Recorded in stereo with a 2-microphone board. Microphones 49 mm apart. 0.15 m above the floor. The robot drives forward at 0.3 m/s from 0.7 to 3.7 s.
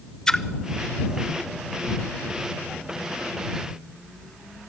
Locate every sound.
0.3 s a splash: 15° left (ahead or behind), 0.7 m